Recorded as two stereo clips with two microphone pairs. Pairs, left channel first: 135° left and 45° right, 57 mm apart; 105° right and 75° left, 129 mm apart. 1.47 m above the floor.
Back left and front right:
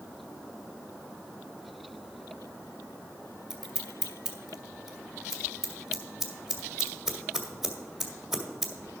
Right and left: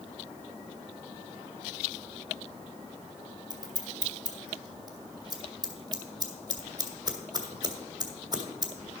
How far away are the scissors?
About 1.5 m.